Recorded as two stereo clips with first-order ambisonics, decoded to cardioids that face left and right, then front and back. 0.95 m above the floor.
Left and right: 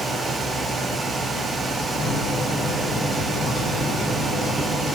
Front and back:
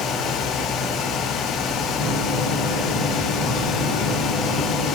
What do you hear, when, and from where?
2.0 s a microwave: 20° left, 0.9 m